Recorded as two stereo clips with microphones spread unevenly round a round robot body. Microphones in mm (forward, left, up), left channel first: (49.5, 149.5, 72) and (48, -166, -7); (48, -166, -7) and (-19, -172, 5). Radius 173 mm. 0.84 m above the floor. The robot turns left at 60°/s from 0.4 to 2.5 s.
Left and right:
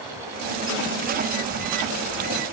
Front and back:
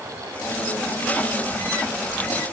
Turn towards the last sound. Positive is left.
No sound to turn to.